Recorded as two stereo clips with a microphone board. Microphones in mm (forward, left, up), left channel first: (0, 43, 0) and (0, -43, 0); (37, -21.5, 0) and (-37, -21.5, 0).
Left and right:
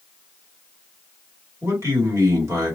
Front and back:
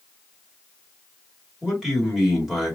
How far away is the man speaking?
About 1.6 m.